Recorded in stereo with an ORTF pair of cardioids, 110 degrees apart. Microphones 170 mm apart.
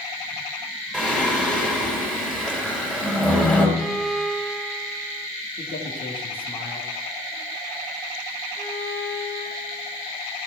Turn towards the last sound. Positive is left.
turn(degrees=10)